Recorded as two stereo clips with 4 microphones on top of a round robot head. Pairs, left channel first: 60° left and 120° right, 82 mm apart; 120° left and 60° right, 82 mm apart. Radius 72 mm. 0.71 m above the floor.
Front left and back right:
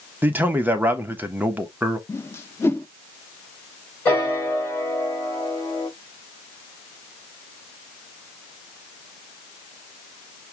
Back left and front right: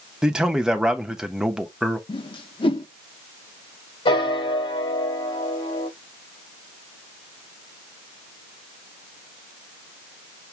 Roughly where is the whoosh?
Behind left.